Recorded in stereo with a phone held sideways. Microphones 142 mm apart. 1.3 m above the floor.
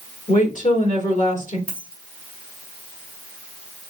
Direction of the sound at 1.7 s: 75° left (ahead or behind).